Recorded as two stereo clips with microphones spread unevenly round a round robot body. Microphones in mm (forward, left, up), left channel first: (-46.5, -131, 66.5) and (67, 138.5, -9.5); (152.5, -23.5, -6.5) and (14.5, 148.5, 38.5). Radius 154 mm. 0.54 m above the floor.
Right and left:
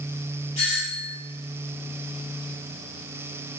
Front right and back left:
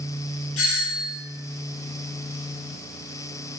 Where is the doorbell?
40° right, 7.5 m.